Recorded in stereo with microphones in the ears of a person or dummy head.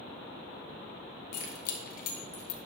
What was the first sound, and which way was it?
Keys jangling, 65° left (ahead or behind).